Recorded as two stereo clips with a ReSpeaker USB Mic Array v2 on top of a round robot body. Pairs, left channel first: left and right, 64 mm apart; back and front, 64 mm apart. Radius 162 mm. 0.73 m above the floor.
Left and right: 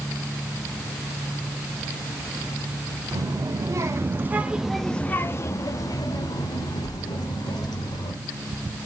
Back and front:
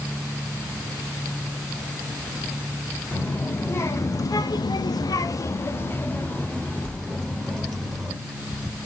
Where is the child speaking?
125° right, 1.5 m; by 8.1 s 95° left, 2.5 m.